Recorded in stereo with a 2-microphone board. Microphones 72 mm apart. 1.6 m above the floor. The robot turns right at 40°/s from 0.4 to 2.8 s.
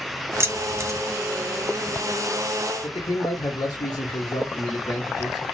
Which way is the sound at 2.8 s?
65° left (ahead or behind).